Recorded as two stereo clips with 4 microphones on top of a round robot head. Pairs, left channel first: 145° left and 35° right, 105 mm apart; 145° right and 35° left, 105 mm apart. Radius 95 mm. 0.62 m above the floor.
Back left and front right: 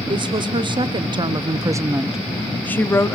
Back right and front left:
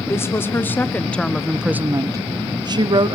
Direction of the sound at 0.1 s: 80° right.